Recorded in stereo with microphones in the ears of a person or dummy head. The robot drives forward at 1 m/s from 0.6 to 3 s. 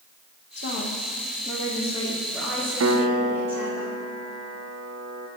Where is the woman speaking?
60° left (ahead or behind), 1.0 m; by 3.8 s 15° left (ahead or behind), 3 m.